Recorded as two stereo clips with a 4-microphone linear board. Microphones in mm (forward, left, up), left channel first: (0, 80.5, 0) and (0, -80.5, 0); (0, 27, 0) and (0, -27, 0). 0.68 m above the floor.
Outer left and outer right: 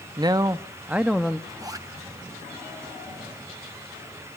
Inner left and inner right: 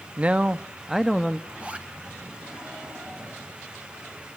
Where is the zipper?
25° right (ahead or behind), 2 m.